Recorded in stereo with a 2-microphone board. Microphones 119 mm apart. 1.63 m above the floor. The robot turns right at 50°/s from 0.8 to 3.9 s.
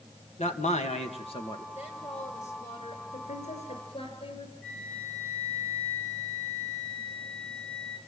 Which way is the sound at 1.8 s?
60° left.